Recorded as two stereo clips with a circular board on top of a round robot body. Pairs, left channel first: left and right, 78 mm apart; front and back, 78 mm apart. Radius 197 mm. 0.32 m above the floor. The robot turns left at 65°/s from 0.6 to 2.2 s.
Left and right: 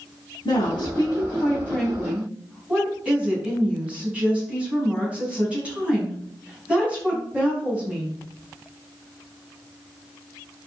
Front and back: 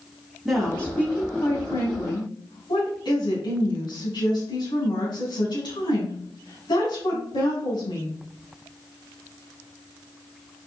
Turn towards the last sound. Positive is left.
turn(degrees=-15)